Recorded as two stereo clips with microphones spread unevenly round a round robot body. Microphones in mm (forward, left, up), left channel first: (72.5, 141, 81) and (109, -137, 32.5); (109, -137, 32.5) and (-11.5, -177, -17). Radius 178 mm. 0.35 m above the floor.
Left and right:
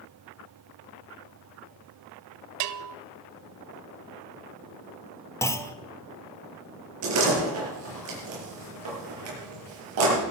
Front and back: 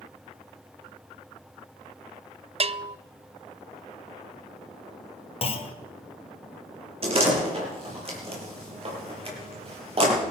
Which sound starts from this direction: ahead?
A clunk, at 5.4 s.